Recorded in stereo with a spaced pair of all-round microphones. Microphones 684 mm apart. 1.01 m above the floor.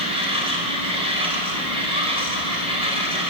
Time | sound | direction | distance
0.0 | a machine running | 10° right (ahead or behind) | 4.5 m